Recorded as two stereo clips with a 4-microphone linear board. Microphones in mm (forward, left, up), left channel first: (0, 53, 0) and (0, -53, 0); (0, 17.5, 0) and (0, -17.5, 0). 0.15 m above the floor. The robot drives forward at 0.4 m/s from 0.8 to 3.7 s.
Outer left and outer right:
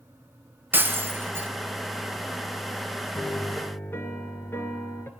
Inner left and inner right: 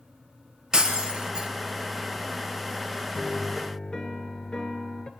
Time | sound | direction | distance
0.7 | breaking glass | 20° right (ahead or behind) | 1.8 m
3.1 | a piano | 25° left (ahead or behind) | 2 m